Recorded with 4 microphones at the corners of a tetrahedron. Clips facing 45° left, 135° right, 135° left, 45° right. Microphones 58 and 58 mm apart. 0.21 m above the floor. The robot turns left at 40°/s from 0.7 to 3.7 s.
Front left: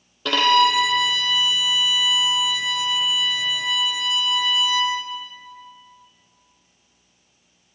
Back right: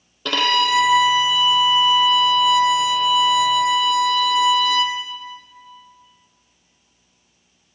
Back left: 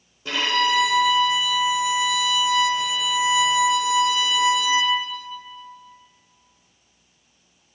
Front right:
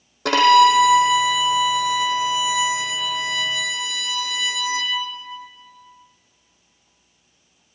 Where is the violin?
45° right, 1.2 m; by 5.0 s 165° right, 1.2 m.